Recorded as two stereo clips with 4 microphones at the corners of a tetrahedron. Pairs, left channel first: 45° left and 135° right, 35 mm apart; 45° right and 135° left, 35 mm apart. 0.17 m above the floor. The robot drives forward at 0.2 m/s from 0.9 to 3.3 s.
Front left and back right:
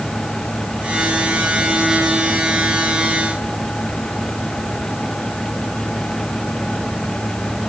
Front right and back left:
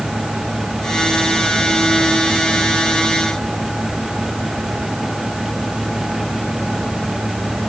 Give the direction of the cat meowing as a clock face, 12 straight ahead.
No cat meowing in this recording.